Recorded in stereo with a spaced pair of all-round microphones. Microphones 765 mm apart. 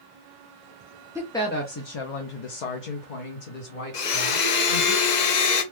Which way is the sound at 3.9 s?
65° left (ahead or behind).